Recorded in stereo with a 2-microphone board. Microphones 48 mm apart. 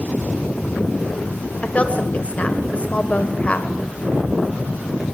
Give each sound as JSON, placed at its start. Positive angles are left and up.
{"t": 1.6, "sound": "a woman speaking", "side_deg": 30, "distance_m": 1.4}